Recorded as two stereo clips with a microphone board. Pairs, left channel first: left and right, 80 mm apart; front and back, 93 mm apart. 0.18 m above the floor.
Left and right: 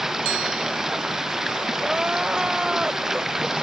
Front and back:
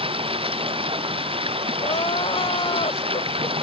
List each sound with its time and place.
0.0 s running water: 175° right
1.8 s crying: 10° right